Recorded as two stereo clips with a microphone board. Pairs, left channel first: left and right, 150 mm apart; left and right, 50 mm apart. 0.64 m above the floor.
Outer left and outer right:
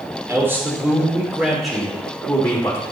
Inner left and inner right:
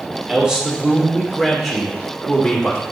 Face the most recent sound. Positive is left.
turn(degrees=15)  # may be behind; listen again after turning